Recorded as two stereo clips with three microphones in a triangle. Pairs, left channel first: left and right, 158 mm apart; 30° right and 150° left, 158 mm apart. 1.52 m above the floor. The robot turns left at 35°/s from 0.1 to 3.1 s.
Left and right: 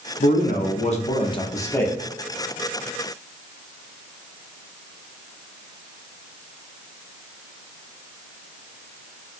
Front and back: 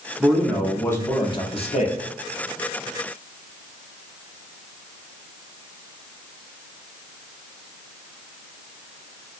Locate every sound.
0.2 s a man speaking: 70° left, 0.8 m; by 1.9 s 10° left, 0.8 m